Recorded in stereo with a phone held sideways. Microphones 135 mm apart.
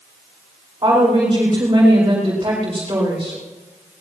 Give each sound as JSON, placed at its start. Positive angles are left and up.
{"t": 0.8, "sound": "a woman speaking", "side_deg": -30, "distance_m": 5.5}